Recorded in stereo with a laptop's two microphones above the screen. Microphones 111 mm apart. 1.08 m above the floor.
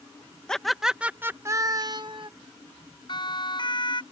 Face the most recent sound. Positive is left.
turn(degrees=45)  # may be behind; listen again after turning